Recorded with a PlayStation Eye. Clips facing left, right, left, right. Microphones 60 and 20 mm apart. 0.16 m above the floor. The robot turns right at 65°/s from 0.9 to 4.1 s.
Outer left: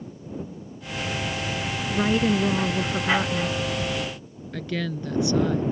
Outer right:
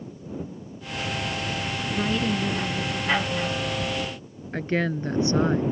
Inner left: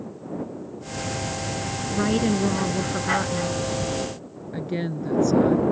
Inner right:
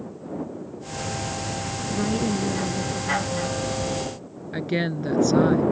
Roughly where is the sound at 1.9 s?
Ahead left.